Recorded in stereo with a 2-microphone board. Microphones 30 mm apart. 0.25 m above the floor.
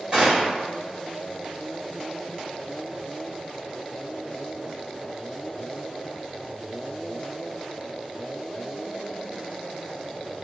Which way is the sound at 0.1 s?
35° right (ahead or behind).